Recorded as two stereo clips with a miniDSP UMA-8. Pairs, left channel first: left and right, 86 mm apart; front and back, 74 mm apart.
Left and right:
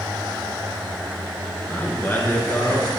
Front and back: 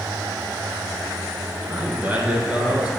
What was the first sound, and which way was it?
A man speaking, 130° left.